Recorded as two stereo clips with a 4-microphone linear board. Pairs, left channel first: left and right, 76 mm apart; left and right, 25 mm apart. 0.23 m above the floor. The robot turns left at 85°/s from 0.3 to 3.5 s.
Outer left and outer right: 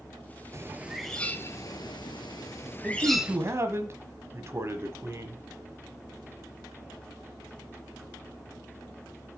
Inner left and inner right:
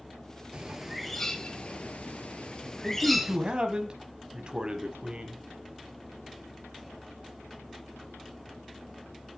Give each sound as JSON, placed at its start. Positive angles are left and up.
{"t": 0.5, "sound": "a bird", "azimuth_deg": -140, "distance_m": 0.8}
{"t": 2.8, "sound": "a man speaking", "azimuth_deg": -30, "distance_m": 1.2}